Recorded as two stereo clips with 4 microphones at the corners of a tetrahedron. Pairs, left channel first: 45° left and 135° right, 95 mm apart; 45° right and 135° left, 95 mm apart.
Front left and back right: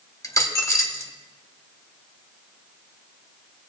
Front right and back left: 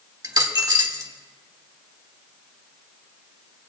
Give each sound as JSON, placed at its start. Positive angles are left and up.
{"t": 0.2, "sound": "a dropped coin", "azimuth_deg": 95, "distance_m": 0.9}